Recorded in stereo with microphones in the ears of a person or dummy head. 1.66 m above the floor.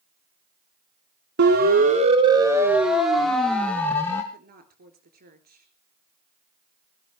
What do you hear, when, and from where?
1.4 s a siren: 55° right (ahead or behind), 2.5 m; by 4.2 s 15° left (ahead or behind), 4.5 m
4.3 s a woman speaking: 45° right (ahead or behind), 3.5 m